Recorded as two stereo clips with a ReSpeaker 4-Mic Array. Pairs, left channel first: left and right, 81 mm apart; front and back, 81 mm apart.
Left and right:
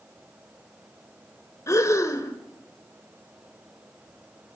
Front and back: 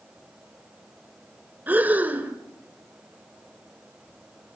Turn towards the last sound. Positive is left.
turn(degrees=120)